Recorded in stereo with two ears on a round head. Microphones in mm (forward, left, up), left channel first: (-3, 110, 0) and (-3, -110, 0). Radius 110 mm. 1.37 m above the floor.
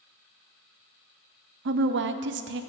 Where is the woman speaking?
50° right (ahead or behind), 0.5 m.